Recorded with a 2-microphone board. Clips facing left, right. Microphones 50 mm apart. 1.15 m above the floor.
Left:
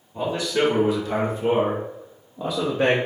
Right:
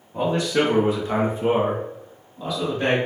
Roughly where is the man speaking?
Right.